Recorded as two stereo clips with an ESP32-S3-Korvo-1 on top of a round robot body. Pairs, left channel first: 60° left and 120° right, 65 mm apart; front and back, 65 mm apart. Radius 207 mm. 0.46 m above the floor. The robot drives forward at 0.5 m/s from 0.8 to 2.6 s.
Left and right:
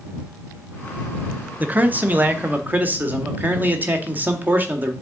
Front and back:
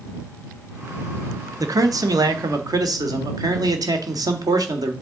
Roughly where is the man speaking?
Behind.